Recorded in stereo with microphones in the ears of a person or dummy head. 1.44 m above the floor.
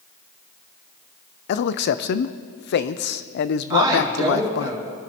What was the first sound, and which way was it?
A man speaking, 65° left (ahead or behind).